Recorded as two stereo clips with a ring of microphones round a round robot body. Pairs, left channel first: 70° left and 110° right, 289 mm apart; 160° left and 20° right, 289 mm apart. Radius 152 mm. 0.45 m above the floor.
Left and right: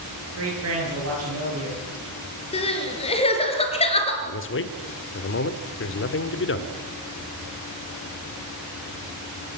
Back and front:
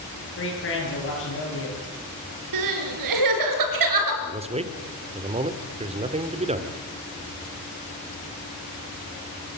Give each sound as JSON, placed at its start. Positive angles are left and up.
{"t": 0.4, "sound": "a man speaking", "azimuth_deg": -155, "distance_m": 9.5}
{"t": 2.5, "sound": "crying", "azimuth_deg": -5, "distance_m": 3.0}
{"t": 4.2, "sound": "a man speaking", "azimuth_deg": 40, "distance_m": 1.6}